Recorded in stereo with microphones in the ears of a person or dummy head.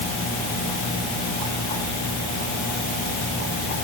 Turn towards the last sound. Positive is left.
No sound to turn to.